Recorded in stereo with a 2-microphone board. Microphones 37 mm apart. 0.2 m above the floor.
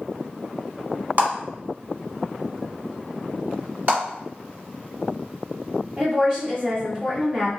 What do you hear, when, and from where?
1.2 s a clap: 50° right (ahead or behind), 1.2 m
3.9 s a clap: 40° right (ahead or behind), 1.8 m
6.0 s a woman speaking: 20° right (ahead or behind), 1.4 m